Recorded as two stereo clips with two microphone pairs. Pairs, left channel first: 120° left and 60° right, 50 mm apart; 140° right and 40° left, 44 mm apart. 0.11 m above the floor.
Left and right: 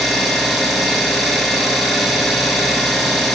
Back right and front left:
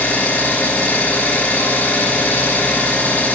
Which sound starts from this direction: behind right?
An engine running, at 0.0 s.